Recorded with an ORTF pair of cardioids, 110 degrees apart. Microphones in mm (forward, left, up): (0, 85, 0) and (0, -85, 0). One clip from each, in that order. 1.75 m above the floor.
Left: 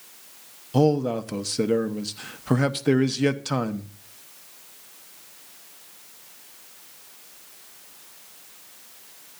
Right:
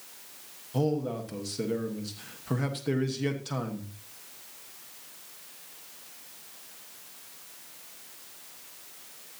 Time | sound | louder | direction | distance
0.7 | a man speaking | left 8 dB | 45° left | 1.2 m